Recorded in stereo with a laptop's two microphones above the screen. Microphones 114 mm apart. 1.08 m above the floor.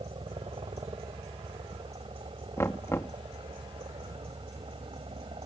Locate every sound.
0.0 s a helicopter: 50° right (ahead or behind)
2.6 s knocking: 25° left (ahead or behind)